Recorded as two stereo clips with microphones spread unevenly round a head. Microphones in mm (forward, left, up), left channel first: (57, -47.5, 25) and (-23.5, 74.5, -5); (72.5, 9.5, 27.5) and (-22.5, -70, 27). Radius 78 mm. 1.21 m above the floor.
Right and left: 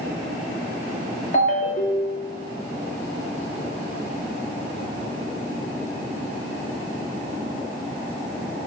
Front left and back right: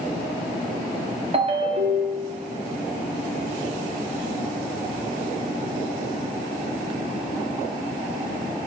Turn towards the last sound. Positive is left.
turn(degrees=-105)